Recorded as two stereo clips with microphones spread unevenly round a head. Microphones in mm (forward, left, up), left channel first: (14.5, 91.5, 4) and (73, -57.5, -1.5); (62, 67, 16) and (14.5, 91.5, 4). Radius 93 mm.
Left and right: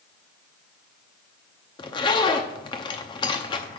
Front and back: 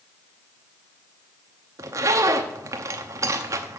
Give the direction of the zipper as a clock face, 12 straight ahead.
7 o'clock.